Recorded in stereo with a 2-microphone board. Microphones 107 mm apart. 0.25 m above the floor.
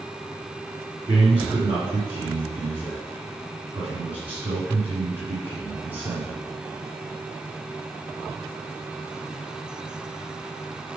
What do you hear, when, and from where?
1.1 s a man speaking: 55° right (ahead or behind), 2 m